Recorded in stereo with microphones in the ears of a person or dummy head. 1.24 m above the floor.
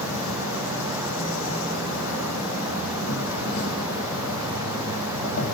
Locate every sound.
0.0 s an insect: 80° left, 8 m